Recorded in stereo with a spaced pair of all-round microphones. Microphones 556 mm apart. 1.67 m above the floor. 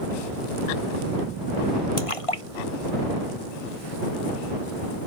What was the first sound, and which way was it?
A splash, 70° left (ahead or behind).